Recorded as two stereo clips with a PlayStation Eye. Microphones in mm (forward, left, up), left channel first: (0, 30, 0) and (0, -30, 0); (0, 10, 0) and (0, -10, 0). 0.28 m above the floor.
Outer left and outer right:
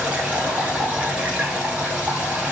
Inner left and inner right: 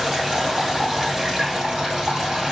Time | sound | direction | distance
0.0 | running water | 25° right (ahead or behind) | 1.2 m